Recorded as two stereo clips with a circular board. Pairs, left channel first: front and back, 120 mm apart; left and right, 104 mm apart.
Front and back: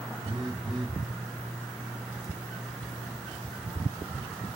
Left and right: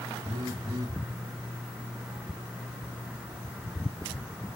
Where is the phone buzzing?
140° right, 1.0 m.